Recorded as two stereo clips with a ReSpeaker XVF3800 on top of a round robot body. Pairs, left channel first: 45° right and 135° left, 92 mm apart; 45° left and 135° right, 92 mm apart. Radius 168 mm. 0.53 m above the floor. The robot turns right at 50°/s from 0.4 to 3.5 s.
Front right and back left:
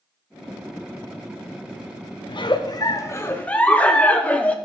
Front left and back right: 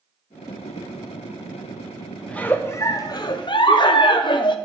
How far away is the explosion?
I don't hear an explosion.